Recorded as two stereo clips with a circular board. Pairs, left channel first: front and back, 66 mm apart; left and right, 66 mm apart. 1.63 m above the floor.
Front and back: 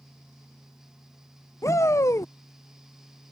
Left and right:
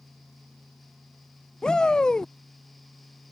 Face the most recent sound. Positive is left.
turn(degrees=15)